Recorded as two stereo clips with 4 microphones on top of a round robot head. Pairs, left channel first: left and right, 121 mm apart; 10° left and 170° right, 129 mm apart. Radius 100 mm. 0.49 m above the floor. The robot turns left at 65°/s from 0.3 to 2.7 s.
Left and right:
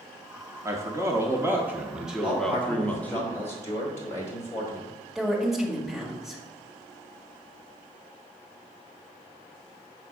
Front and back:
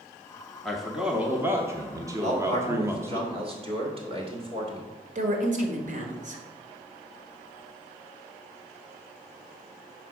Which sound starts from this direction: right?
A man speaking, at 0.7 s.